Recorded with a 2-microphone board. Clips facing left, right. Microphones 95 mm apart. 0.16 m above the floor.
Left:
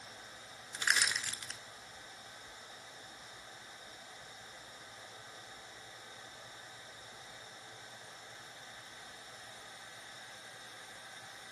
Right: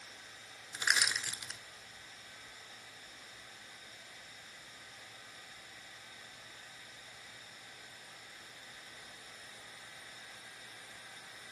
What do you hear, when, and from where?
0.7 s crushing: 5° right (ahead or behind), 0.6 m